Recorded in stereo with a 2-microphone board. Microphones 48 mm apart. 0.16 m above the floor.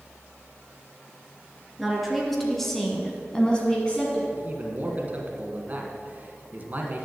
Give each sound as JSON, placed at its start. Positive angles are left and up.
{"t": 1.8, "sound": "a woman speaking", "side_deg": 0, "distance_m": 2.5}
{"t": 4.3, "sound": "a man speaking", "side_deg": -35, "distance_m": 1.7}